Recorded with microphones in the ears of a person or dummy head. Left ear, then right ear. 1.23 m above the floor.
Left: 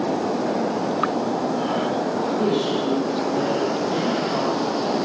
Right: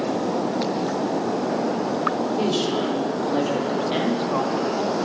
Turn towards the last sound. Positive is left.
turn(degrees=-40)  # may be behind; listen again after turning